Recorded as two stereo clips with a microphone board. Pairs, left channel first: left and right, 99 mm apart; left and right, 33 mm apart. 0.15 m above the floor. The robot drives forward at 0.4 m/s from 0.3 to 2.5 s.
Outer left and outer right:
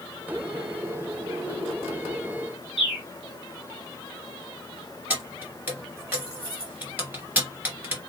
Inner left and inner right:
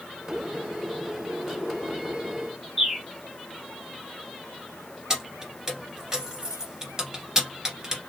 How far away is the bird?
About 1.3 m.